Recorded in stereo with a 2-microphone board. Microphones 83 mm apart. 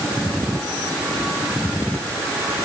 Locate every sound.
Only background noise.